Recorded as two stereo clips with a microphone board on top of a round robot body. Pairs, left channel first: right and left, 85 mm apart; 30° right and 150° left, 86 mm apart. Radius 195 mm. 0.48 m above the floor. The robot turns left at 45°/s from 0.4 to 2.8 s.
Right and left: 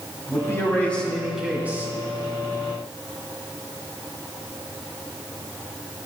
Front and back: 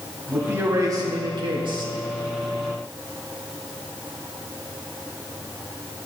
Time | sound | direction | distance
0.3 | a man speaking | 145° right | 3 m